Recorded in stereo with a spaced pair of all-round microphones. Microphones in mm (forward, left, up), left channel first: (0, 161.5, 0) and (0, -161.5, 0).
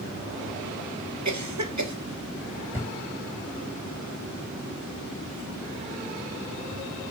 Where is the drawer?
5° right (ahead or behind), 4 m.